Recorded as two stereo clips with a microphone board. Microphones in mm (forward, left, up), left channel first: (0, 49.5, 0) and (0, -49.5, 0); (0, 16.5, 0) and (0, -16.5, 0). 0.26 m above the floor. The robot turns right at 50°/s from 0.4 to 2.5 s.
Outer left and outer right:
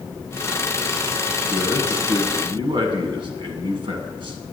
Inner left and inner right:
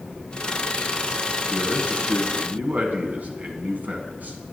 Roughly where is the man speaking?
Behind right.